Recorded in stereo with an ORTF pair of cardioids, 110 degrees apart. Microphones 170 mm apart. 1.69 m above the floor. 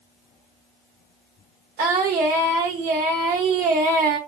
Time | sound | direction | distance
1.8 | singing | 65° right | 1.4 m